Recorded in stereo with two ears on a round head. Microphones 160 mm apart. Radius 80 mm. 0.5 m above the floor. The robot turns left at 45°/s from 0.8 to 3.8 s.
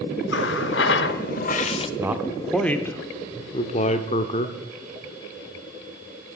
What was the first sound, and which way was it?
A running tap, 80° left.